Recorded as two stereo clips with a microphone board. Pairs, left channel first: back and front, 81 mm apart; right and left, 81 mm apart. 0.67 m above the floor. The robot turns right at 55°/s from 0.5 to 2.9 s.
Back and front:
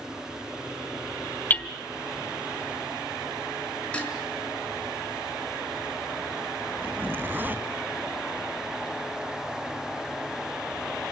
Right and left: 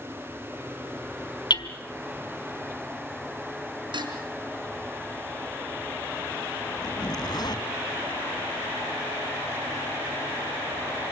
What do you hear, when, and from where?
1.5 s hammering: 115° right, 1.3 m; by 1.7 s 105° right, 1.3 m
3.9 s dishes clattering: 105° left, 5 m
6.8 s a zipper: 65° right, 1.3 m